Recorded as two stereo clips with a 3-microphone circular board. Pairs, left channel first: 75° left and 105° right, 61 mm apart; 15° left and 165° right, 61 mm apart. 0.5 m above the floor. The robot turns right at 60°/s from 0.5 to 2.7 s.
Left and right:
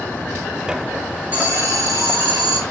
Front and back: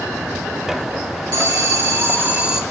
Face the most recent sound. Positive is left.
turn(degrees=-80)